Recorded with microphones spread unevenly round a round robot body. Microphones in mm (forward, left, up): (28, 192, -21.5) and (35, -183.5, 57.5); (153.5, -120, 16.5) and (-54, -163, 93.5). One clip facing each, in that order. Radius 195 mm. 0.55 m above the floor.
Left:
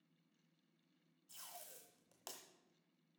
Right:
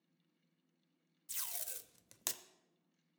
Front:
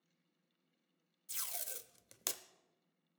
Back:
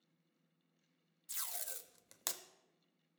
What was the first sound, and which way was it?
Tape being pulled, 50° right.